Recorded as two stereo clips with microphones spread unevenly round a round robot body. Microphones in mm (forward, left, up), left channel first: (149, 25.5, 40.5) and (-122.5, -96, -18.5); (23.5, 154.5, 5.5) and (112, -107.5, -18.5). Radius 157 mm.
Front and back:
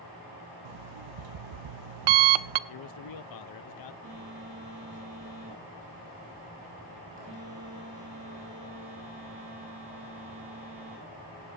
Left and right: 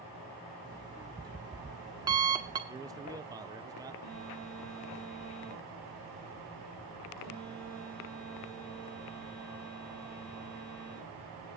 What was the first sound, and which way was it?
An alarm clock, 150° right.